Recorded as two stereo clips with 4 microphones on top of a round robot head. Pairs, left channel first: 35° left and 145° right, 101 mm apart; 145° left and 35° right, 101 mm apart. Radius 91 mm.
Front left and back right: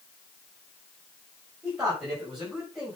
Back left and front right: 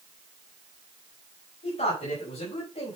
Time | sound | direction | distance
1.6 | a man speaking | 135° left | 5 m